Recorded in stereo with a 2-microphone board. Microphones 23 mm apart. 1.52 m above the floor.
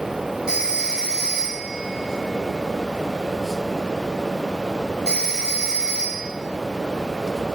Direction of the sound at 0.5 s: 30° right (ahead or behind).